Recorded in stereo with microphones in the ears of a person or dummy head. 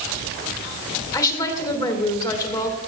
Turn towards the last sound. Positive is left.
turn(degrees=20)  # may be behind; listen again after turning